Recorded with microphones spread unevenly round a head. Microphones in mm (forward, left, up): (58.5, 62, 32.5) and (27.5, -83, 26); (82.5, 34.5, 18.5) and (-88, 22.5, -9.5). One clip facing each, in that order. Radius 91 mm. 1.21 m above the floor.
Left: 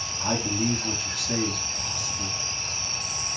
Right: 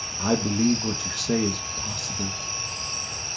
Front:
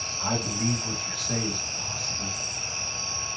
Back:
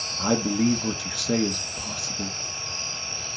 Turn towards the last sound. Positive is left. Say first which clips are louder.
# right 5 dB, back 7 dB
turn(degrees=-140)